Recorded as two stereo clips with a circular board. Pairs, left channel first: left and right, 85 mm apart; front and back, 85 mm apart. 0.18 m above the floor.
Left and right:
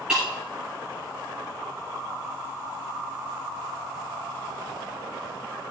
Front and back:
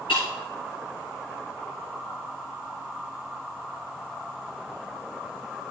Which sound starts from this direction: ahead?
Breaking glass, at 0.1 s.